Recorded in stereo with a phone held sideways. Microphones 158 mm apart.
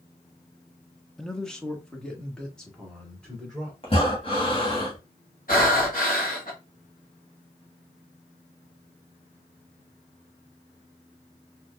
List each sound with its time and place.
1.2 s a man speaking: 5° left (ahead or behind), 0.5 m
3.8 s breathing: 35° left (ahead or behind), 1.5 m
5.5 s breathing: 60° left (ahead or behind), 1.3 m